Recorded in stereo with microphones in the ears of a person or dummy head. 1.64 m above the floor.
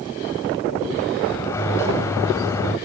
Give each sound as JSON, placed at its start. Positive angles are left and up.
{"t": 1.2, "sound": "a sliding door", "side_deg": 15, "distance_m": 1.8}